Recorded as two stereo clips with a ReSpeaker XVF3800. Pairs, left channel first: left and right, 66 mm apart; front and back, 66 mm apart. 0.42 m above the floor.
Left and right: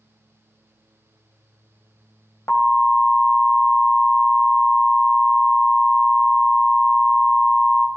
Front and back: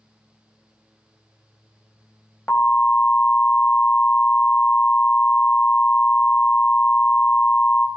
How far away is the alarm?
About 2.5 m.